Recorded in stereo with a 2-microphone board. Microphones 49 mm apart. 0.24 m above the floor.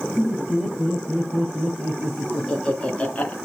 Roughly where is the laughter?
Centre.